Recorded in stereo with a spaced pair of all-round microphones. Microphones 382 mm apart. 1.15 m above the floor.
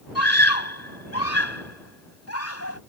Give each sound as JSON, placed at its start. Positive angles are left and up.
{"t": 0.1, "sound": "a scream", "side_deg": 40}